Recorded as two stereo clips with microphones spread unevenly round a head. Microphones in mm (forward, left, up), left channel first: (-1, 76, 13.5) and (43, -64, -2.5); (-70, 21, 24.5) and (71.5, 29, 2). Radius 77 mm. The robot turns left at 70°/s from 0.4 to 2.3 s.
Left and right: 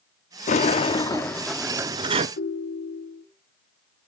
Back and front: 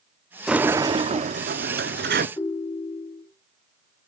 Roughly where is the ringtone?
Behind left.